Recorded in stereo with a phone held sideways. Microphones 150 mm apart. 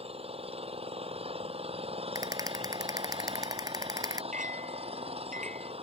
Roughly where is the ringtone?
No ringtone in this recording.